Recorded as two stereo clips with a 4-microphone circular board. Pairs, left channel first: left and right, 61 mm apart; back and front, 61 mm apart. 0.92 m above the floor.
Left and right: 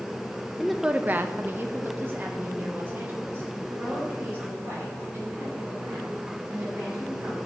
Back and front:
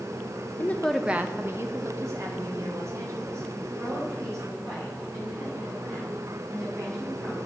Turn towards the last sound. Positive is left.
turn(degrees=-30)